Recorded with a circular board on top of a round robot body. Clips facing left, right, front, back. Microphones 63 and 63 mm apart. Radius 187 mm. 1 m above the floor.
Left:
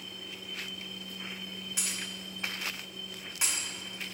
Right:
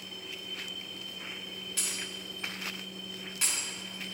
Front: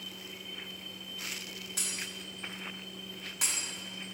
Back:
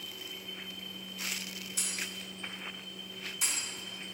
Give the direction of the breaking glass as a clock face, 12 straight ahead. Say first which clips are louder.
Even, back 1 dB; 11 o'clock.